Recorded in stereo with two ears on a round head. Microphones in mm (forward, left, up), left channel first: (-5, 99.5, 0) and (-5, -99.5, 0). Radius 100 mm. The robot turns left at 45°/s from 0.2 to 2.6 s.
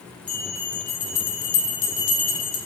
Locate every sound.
0.3 s a bell: 145° left, 0.6 m; by 2.6 s 40° left, 0.6 m